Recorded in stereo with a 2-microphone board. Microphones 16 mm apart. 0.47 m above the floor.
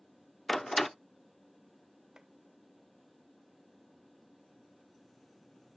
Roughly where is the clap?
Right.